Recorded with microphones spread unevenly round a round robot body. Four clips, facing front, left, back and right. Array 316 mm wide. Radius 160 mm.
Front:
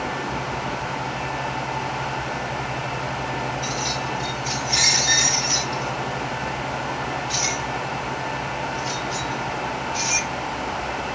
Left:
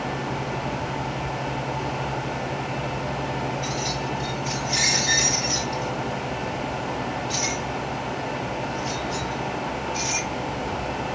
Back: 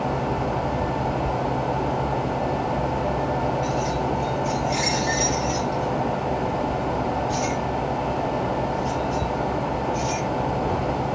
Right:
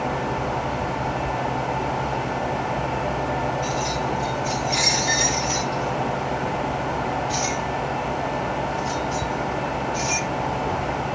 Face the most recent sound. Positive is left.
turn(degrees=-170)